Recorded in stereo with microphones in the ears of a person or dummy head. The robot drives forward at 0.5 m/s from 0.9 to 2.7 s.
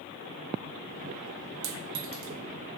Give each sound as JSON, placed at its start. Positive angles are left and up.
{"t": 1.6, "sound": "a clink", "side_deg": -85, "distance_m": 0.6}